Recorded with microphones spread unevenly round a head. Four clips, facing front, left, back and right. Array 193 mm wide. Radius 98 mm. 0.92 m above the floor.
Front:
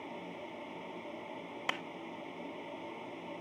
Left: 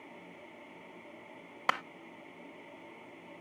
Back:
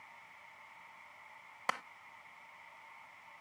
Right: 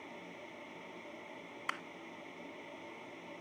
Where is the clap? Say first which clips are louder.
Left 10 dB, back 2 dB; 90° left.